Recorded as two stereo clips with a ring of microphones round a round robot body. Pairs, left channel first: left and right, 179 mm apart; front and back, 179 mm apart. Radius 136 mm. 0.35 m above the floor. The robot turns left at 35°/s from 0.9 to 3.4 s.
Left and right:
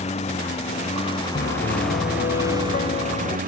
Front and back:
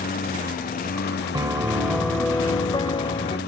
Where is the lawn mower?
35° left; by 3.5 s 50° right.